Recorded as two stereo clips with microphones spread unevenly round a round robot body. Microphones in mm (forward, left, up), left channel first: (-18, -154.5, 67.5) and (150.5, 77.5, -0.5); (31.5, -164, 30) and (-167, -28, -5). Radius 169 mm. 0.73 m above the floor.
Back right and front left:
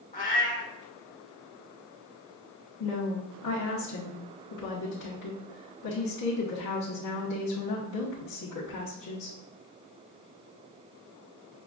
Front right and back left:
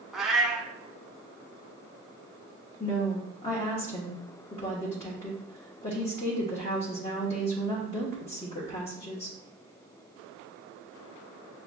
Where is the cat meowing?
115° right, 0.7 m.